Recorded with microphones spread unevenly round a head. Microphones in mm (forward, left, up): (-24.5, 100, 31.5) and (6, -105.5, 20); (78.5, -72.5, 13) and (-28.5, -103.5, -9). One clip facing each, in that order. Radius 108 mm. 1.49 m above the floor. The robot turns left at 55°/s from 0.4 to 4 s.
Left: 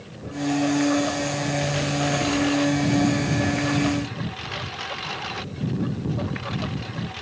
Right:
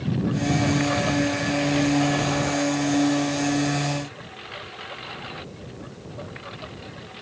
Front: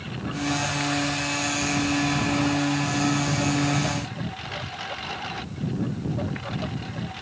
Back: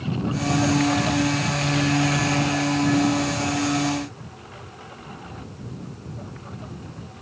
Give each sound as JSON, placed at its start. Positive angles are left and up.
{"t": 0.0, "sound": "a lawn mower", "azimuth_deg": -105}